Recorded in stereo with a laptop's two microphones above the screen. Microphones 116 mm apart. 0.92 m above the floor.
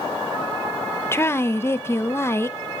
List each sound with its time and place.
1.1 s a woman speaking: 20° left (ahead or behind), 0.7 m